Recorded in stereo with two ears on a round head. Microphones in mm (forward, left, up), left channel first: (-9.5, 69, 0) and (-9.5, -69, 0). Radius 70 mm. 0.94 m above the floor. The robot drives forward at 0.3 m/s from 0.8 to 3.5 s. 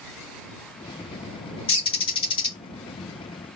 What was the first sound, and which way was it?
A bird, 40° left (ahead or behind).